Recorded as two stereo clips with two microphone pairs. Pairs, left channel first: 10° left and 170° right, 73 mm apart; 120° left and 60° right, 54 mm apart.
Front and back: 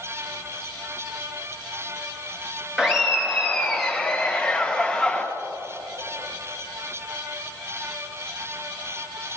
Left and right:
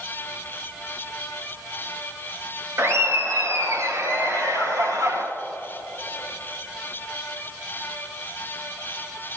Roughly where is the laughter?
Right.